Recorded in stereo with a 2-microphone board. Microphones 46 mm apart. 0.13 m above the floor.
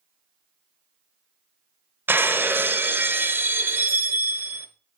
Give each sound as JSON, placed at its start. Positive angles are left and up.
{"t": 2.1, "sound": "breaking glass", "side_deg": -50, "distance_m": 1.1}